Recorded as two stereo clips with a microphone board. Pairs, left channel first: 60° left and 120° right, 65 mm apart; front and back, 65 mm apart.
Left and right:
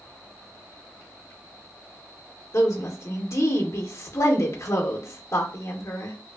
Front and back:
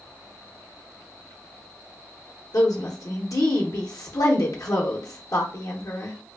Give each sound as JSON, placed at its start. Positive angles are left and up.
{"t": 2.5, "sound": "a woman speaking", "azimuth_deg": 20, "distance_m": 0.6}